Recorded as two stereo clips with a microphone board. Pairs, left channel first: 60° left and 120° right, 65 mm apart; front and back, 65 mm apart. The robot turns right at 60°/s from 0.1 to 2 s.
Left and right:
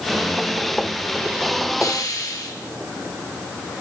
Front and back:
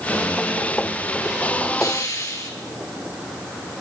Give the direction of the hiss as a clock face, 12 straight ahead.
11 o'clock.